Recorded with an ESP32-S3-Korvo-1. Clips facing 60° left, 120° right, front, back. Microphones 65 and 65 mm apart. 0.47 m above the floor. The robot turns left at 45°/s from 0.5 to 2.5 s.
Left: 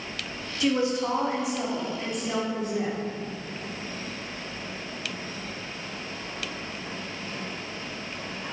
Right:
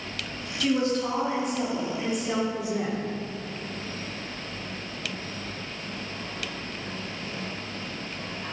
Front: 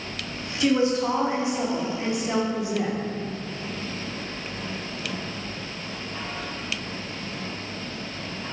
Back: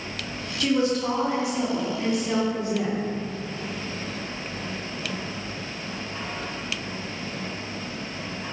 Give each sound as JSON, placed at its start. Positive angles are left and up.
{"t": 0.6, "sound": "a woman speaking", "azimuth_deg": 35, "distance_m": 0.7}